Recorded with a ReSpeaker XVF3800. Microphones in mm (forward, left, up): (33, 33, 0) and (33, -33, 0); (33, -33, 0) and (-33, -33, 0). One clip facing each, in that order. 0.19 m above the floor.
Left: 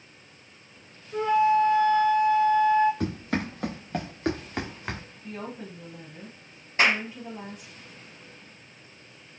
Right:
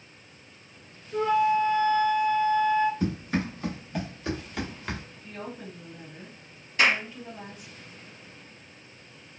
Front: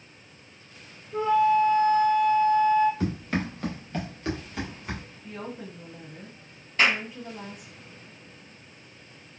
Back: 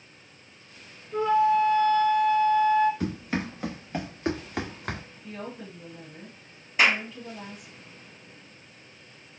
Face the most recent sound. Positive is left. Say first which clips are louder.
# even, back 1 dB
turn(degrees=110)